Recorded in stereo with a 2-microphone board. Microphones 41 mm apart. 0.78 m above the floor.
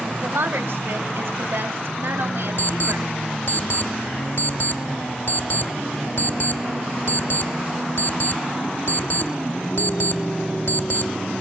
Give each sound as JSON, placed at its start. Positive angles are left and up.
{"t": 0.2, "sound": "a woman speaking", "side_deg": -75, "distance_m": 3.5}
{"t": 2.6, "sound": "an alarm clock", "side_deg": 60, "distance_m": 2.5}